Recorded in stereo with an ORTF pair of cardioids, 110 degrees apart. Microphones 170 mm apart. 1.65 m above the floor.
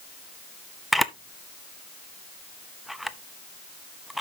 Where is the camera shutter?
Straight ahead, 0.7 m.